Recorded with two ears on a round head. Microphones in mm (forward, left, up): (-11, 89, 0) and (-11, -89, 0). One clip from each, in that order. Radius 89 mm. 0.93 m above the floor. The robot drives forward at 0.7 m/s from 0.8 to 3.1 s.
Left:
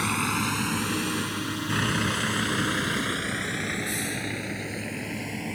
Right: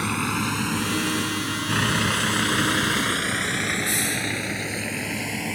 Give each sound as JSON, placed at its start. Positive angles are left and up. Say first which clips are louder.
{"t": 0.0, "sound": "a vehicle", "louder": "right 1 dB", "side_deg": 10}